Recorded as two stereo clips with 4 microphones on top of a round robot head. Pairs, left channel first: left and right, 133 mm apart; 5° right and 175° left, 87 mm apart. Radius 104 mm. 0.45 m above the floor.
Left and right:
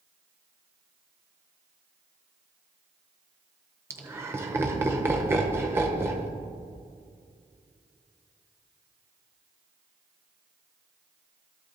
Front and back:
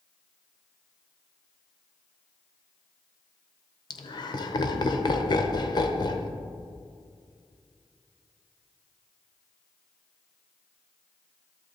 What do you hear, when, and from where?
3.9 s laughter: 20° right, 1.3 m